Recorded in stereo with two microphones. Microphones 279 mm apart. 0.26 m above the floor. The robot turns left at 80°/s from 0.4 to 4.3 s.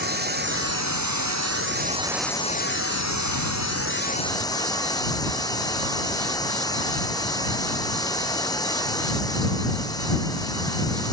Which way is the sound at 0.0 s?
35° right.